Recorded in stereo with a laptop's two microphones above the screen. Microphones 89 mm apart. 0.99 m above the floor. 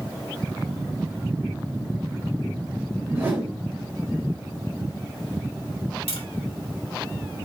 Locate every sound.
3.1 s a whoosh: 15° right (ahead or behind), 2.5 m
6.1 s tapping: 85° left, 1.6 m